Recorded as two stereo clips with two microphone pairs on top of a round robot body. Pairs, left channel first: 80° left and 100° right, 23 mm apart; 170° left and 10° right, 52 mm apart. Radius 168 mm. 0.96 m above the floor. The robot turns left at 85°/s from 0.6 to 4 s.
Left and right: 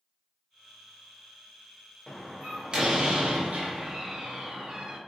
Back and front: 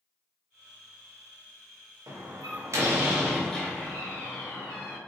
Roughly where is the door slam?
Ahead.